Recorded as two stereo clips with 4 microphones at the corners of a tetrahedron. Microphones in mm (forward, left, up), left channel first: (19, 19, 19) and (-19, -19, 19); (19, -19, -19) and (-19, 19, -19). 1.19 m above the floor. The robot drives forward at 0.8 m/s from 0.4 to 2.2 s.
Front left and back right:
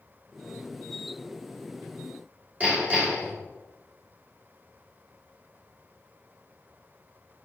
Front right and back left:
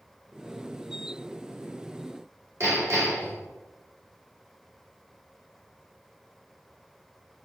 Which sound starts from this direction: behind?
Hammering, at 2.6 s.